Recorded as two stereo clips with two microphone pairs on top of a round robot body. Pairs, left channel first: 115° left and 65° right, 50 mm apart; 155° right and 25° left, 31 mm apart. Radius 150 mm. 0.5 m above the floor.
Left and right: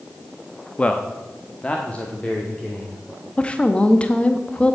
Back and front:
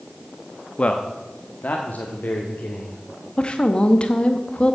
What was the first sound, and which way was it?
A man speaking, 175° left.